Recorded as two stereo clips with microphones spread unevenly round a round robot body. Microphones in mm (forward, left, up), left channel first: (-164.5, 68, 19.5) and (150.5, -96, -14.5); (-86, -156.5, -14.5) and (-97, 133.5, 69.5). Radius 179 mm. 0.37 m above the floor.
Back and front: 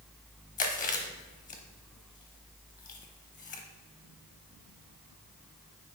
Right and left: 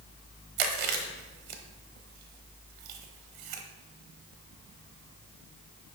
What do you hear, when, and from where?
0.6 s chewing: 80° left, 1.3 m